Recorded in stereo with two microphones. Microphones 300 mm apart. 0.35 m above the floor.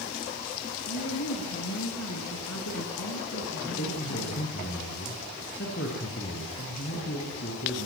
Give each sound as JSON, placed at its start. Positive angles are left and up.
{"t": 0.9, "sound": "a woman speaking", "side_deg": 65, "distance_m": 4.5}
{"t": 3.6, "sound": "a man speaking", "side_deg": 45, "distance_m": 5.5}